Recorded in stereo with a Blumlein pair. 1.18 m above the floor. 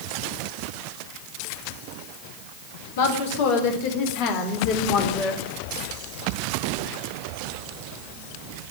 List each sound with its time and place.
3.0 s a woman speaking: 55° left, 4.5 m; by 5.4 s 30° left, 3.5 m